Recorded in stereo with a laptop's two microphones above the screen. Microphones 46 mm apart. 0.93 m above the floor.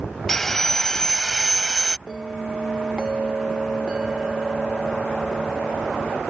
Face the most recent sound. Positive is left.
turn(degrees=-20)  # may be behind; listen again after turning